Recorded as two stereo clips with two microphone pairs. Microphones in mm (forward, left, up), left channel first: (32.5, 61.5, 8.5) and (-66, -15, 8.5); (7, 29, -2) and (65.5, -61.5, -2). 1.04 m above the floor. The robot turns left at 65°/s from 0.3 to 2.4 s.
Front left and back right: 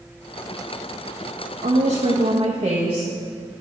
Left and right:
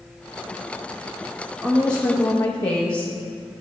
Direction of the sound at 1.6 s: 135° right.